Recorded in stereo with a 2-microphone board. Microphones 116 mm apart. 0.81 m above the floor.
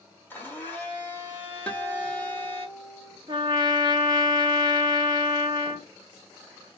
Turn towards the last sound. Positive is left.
turn(degrees=-40)  # may be behind; listen again after turning